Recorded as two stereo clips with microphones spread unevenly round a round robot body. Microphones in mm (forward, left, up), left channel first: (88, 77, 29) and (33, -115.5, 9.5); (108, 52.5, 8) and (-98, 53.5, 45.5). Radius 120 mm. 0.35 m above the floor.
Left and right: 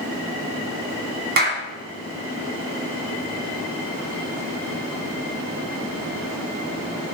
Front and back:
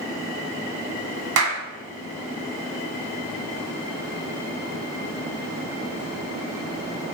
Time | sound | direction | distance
1.4 | a clap | 155° right | 1.9 m